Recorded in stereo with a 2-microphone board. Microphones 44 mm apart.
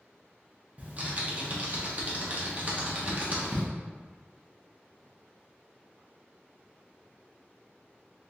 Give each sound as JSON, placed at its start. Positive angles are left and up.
{"t": 0.8, "sound": "typing on a keyboard", "side_deg": -35, "distance_m": 0.7}